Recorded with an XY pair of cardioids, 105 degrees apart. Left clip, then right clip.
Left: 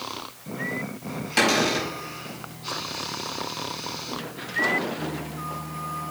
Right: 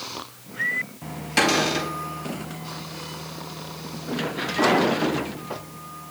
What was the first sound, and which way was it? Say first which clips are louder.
A cupboard door: right 1 dB; 5° right.